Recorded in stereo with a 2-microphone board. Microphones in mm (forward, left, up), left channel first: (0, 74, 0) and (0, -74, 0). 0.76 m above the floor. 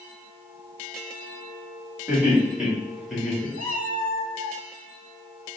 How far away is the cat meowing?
About 1.1 m.